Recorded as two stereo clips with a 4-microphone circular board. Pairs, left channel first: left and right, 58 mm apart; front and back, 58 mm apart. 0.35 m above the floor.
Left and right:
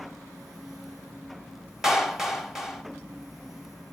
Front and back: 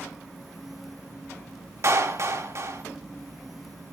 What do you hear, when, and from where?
1.8 s a clap: 175° right, 1.6 m